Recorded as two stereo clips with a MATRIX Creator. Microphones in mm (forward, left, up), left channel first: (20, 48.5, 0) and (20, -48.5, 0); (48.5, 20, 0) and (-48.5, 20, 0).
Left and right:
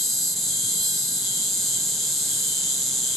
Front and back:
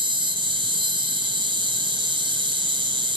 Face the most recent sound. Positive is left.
turn(degrees=180)